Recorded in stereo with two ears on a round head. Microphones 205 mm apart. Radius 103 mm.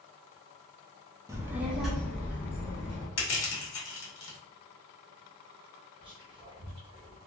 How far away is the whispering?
About 1.0 m.